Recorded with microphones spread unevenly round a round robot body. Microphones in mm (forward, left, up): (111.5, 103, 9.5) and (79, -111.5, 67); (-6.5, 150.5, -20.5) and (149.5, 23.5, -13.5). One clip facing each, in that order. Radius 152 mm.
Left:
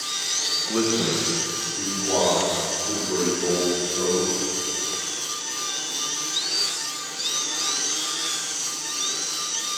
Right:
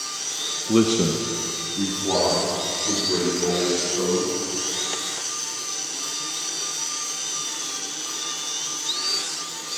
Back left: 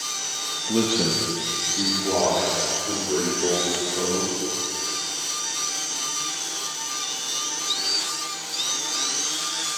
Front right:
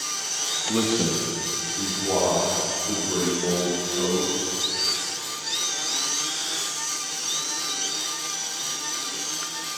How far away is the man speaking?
About 0.7 m.